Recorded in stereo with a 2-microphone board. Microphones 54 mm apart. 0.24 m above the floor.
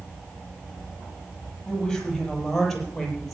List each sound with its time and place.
1.7 s a woman speaking: 10° left (ahead or behind), 8 m; by 3.3 s centre (ahead or behind), 7 m